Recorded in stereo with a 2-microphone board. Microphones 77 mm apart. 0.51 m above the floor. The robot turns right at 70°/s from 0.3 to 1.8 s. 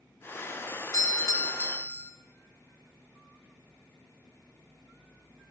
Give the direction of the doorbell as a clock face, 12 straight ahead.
9 o'clock.